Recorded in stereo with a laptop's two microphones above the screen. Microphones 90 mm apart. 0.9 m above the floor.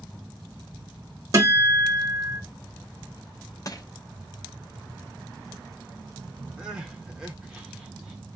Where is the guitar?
40° right (ahead or behind), 1.3 m.